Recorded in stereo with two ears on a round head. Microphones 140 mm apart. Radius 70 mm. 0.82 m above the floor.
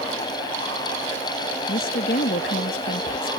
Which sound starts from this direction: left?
A woman speaking, at 1.7 s.